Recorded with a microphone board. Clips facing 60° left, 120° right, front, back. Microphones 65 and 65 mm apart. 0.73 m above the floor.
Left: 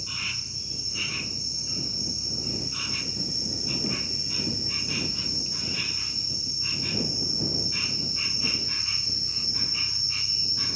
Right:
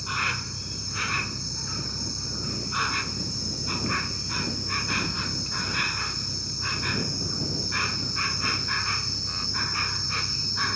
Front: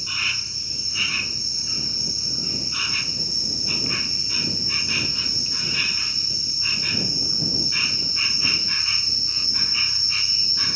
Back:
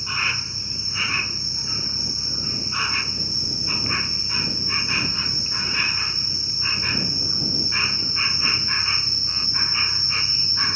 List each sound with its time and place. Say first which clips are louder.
0.0 s an insect: right 9 dB, back 3 dB; 125° right